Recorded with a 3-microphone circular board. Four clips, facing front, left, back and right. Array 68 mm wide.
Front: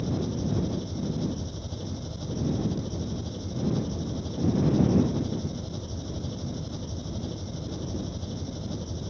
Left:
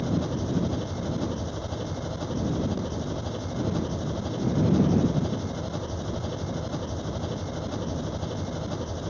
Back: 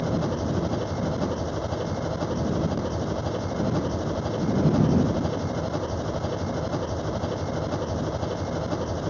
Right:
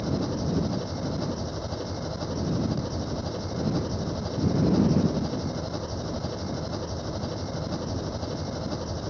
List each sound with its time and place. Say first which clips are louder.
0.0 s an engine running: even, back 4 dB; 170° right